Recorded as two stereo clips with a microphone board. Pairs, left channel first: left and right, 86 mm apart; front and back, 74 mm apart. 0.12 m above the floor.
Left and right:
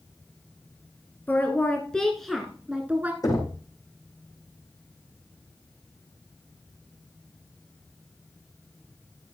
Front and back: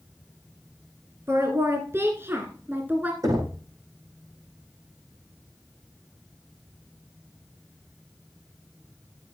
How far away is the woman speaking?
About 2 m.